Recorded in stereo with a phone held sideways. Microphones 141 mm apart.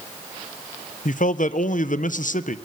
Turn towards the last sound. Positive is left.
turn(degrees=70)  # may be behind; listen again after turning